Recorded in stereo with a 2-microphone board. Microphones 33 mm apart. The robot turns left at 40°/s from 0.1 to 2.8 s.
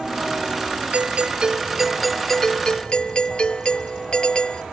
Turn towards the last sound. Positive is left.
turn(degrees=150)